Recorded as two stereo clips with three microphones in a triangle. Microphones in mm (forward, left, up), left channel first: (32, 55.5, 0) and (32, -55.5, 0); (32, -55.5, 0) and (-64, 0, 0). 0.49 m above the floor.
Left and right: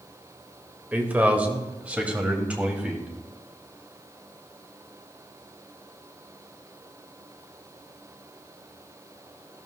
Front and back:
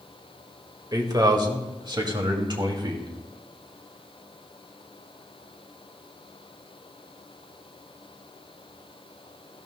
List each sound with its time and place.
0.9 s a man speaking: 165° right, 1.6 m